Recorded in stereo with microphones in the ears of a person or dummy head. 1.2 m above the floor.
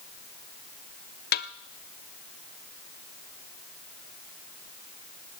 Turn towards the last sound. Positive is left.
turn(degrees=45)  # may be behind; listen again after turning